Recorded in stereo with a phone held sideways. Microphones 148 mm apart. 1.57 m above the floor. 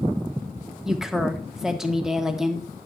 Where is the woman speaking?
5° right (ahead or behind), 1.2 m.